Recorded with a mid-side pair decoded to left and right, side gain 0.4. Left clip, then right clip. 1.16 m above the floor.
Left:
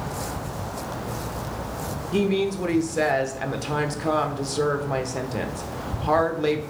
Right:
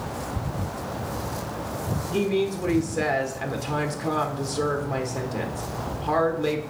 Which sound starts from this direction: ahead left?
A woman speaking, at 2.1 s.